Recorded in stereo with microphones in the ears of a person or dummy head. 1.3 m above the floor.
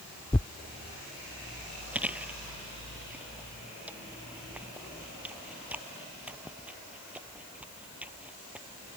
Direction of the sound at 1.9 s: 10° right (ahead or behind).